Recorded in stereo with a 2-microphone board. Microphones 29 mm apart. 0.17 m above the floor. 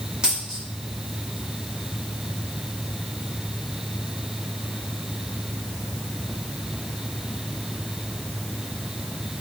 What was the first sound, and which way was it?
A dropped coin, 35° right (ahead or behind).